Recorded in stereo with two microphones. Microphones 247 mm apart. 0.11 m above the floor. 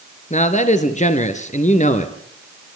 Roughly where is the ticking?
I don't hear ticking.